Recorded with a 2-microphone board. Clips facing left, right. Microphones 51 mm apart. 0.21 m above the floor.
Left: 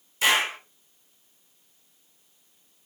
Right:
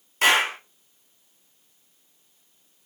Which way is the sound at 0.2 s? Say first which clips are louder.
Right 3 dB; 50° right (ahead or behind).